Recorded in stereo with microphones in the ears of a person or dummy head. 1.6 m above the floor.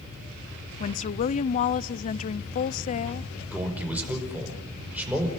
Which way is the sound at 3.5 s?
5° right (ahead or behind).